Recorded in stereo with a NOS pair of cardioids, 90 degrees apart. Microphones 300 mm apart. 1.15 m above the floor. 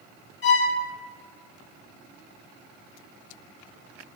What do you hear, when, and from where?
0.4 s a violin: 40° left, 0.7 m